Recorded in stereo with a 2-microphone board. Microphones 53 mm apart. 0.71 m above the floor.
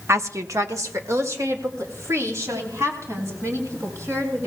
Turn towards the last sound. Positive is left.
turn(degrees=-65)  # may be behind; listen again after turning